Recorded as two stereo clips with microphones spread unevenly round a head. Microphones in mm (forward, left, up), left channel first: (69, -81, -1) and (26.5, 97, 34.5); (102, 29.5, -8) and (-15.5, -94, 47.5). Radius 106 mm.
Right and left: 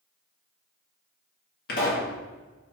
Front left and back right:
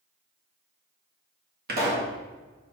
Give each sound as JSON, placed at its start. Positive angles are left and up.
{"t": 1.7, "sound": "a pop", "azimuth_deg": -100, "distance_m": 1.7}